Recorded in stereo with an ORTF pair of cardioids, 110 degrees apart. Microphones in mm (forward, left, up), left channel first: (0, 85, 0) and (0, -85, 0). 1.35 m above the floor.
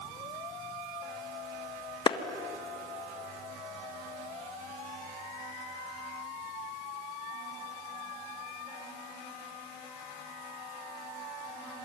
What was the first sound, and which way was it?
A clap, 25° left.